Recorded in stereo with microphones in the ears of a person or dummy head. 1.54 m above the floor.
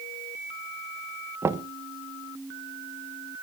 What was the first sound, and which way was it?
Knocking, 10° right (ahead or behind).